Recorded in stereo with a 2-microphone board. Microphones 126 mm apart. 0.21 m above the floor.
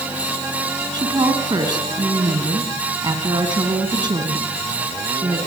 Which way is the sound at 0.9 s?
35° right (ahead or behind).